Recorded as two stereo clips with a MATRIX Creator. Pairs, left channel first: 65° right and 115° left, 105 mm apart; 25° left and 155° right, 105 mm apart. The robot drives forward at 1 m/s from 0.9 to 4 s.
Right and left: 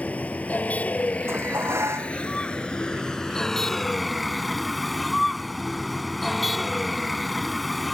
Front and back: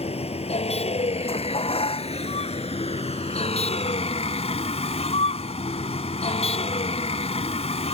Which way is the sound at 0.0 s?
10° left.